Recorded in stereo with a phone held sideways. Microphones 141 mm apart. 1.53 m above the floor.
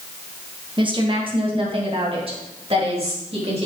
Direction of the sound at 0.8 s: 35° right (ahead or behind).